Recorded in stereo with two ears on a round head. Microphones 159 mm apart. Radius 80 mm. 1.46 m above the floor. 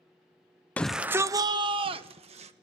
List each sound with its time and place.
0.8 s a shout: 10° left (ahead or behind), 0.5 m; by 2.5 s 35° right (ahead or behind), 1.6 m